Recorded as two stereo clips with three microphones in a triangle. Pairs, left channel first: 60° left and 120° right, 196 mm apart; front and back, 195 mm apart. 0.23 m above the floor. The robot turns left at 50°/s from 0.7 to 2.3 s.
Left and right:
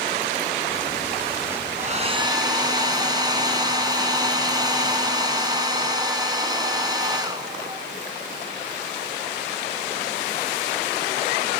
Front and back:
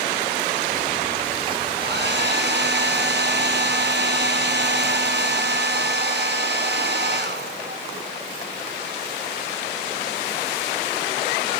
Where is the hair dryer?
160° right, 1.5 m; by 7.8 s 175° left, 1.5 m.